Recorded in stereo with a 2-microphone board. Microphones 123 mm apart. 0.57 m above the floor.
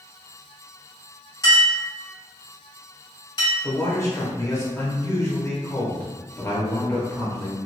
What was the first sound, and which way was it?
A clink, 35° left (ahead or behind).